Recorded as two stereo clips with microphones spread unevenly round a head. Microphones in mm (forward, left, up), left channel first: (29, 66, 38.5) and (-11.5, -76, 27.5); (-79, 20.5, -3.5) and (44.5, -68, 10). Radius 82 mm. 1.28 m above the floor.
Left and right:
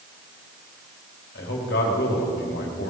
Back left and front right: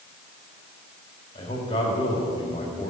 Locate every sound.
1.4 s a man speaking: 85° left, 3.5 m